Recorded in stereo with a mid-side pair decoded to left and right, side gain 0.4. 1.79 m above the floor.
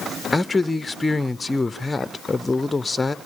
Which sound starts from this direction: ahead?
A man speaking, at 0.3 s.